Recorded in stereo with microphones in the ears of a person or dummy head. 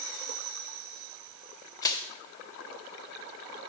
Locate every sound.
1.8 s crushing: 15° left (ahead or behind), 0.5 m